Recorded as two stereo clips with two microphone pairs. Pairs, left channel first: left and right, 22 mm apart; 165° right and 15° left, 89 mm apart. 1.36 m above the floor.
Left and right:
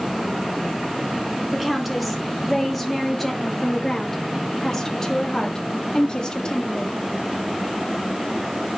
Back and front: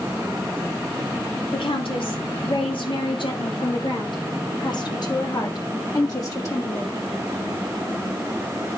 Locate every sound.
1.5 s a woman speaking: 175° right, 3.5 m; by 7.0 s 140° left, 3.5 m